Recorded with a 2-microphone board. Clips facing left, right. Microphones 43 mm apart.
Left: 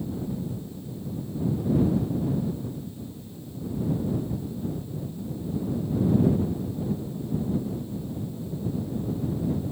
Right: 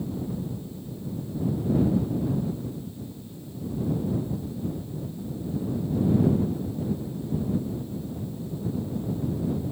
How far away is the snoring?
I don't hear snoring.